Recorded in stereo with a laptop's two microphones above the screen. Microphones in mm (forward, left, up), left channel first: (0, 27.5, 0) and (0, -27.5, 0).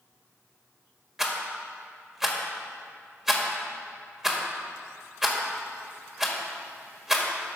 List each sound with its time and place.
1.2 s a rattle: 10° right (ahead or behind), 1.8 m